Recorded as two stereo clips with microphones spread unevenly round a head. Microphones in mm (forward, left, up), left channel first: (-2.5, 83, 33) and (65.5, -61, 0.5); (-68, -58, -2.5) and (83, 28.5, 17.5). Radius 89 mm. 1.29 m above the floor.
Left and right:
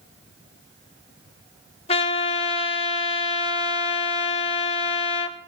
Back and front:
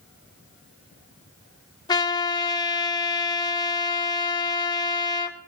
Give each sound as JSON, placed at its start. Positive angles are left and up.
{"t": 1.9, "sound": "a trumpet", "azimuth_deg": 140, "distance_m": 0.9}